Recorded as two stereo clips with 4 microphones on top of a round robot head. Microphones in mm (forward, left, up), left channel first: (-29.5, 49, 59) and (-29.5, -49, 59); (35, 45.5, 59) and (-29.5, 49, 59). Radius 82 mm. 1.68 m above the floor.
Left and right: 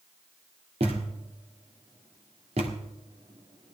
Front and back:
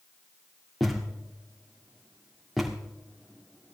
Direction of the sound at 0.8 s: 90° right.